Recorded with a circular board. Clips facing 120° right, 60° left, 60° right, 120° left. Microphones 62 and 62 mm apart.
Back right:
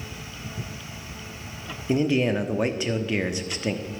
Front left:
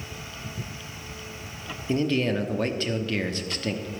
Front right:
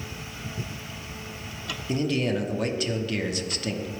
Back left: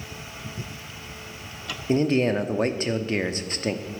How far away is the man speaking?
About 0.9 m.